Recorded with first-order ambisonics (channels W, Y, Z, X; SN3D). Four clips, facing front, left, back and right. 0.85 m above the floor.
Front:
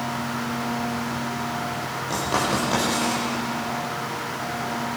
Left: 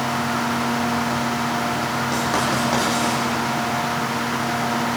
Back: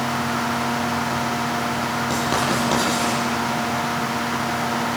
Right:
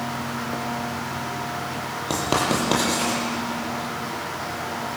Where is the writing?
110° right, 8.5 m.